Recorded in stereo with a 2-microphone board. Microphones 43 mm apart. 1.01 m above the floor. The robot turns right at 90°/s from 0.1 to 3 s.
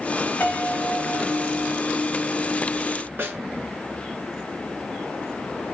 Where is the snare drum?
60° right (ahead or behind), 1.4 m.